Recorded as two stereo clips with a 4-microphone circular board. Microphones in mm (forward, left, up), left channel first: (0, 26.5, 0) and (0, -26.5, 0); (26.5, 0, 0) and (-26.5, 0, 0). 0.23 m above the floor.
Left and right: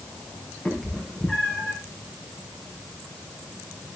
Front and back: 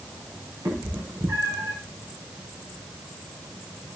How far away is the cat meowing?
About 5 m.